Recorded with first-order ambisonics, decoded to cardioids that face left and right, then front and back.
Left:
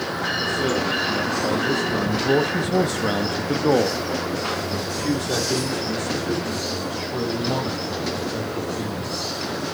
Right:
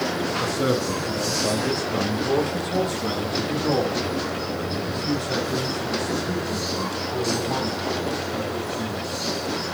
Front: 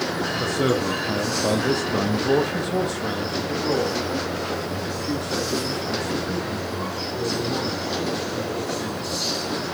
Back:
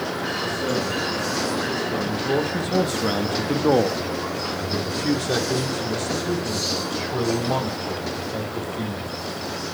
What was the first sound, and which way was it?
A man speaking, 10° right.